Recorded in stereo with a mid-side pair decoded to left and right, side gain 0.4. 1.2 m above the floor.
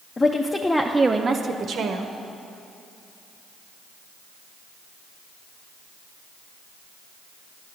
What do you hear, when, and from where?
0.2 s a woman speaking: 35° left, 0.8 m; by 2.1 s 75° right, 1.1 m